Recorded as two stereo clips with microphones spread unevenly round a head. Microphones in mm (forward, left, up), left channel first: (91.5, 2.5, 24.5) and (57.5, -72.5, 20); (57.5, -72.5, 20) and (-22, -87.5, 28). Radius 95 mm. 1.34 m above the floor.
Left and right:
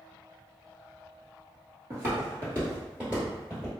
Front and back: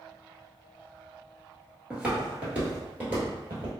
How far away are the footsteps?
About 1.4 m.